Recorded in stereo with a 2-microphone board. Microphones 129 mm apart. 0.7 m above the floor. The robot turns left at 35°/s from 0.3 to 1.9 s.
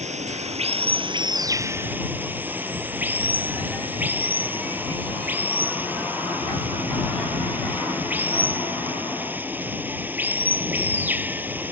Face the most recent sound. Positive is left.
turn(degrees=-165)